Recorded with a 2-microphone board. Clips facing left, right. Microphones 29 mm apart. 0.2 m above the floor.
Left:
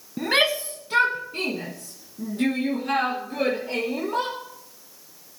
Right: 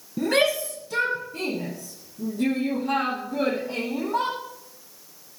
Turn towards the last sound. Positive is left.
turn(degrees=75)  # may be behind; listen again after turning